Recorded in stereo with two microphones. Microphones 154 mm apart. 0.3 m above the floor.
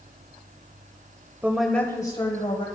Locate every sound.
1.4 s a woman speaking: 15° right (ahead or behind), 0.9 m; by 2.6 s 45° left (ahead or behind), 1.3 m